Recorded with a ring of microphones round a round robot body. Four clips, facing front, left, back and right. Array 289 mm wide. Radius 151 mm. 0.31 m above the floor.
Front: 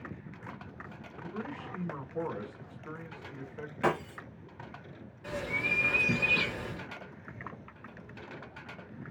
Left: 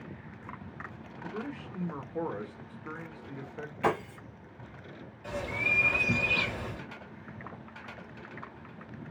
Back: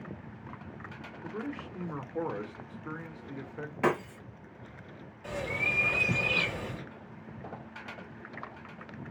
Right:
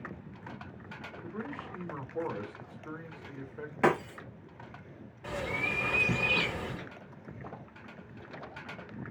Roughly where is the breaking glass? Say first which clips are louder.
Right 2 dB, back 1 dB; right.